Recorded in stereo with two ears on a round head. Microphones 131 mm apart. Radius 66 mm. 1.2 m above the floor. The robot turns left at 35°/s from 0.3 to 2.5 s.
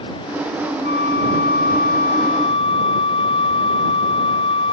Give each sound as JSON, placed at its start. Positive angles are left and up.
{"t": 0.8, "sound": "a flute", "azimuth_deg": 95}